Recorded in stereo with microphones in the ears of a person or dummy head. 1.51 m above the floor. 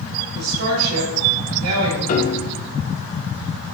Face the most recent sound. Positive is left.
turn(degrees=40)  # may be behind; listen again after turning